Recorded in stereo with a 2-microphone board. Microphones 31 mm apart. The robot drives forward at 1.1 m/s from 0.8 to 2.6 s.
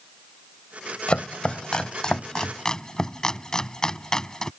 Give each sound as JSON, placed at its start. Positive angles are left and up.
{"t": 1.1, "sound": "chopping", "side_deg": 35}